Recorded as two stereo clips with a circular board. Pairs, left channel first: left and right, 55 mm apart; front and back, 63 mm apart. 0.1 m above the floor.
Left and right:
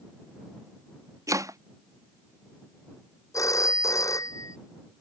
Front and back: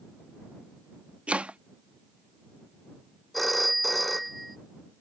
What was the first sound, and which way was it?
Chopping, 105° right.